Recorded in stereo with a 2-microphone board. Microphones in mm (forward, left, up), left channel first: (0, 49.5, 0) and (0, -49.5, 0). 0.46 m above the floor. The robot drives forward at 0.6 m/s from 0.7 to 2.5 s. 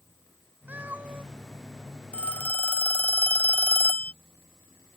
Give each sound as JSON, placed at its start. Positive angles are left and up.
{"t": 0.7, "sound": "a cat meowing", "side_deg": -15}
{"t": 2.1, "sound": "a phone ringing", "side_deg": 15}